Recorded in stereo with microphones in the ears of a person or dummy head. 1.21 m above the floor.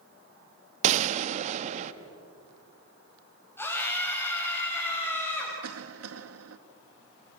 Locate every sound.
0.8 s a gunshot: 40° right (ahead or behind), 0.9 m
3.6 s a scream: 5° left (ahead or behind), 9 m
5.6 s a cough: 75° right (ahead or behind), 2 m